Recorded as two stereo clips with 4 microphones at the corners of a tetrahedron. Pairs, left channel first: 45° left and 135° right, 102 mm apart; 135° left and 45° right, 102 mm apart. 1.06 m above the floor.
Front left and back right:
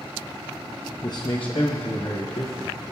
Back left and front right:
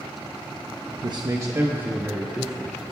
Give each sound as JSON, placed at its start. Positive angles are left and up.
{"t": 1.0, "sound": "a man speaking", "azimuth_deg": -5, "distance_m": 0.7}